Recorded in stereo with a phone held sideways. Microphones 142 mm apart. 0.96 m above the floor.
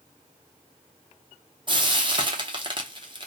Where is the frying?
35° right (ahead or behind), 0.6 m.